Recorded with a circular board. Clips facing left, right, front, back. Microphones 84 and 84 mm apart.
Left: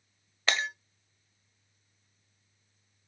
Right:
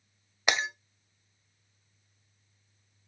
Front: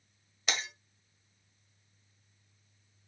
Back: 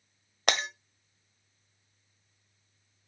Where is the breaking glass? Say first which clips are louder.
Right 1 dB, back 7 dB; 165° right, 1.3 m.